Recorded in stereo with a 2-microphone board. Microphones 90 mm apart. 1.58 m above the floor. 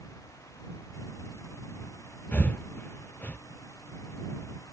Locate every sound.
2.3 s breathing: 15° left (ahead or behind)